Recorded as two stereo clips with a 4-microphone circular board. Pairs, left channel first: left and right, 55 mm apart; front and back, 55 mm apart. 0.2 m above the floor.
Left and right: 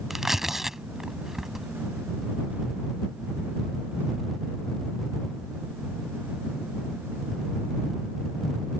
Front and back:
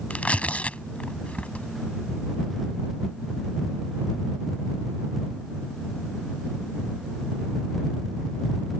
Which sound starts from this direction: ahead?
Tearing paper, at 0.1 s.